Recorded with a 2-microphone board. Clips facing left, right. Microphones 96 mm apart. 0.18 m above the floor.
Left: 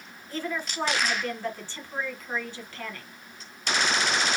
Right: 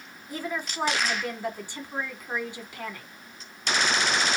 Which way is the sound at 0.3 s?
15° right (ahead or behind).